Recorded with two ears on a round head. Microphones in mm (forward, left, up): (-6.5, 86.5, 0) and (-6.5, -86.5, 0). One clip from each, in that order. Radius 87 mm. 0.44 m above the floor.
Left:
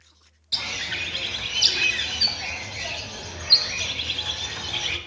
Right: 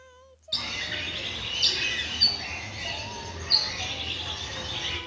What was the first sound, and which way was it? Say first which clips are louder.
A bird: left 3 dB; 30° left (ahead or behind).